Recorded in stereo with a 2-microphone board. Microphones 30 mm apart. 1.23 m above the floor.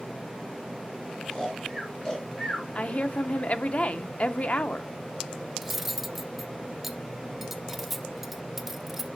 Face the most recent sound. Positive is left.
turn(degrees=-5)  # may be behind; listen again after turning